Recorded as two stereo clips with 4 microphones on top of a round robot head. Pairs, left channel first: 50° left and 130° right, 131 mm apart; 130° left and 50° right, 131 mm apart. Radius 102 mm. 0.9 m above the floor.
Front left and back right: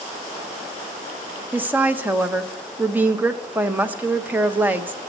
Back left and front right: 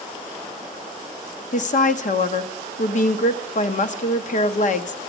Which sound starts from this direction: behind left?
A woman speaking, at 1.5 s.